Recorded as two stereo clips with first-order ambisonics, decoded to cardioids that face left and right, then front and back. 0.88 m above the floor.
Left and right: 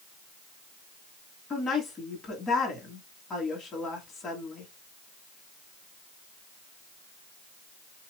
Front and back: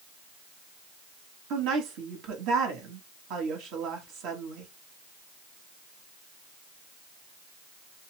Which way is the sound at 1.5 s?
165° left.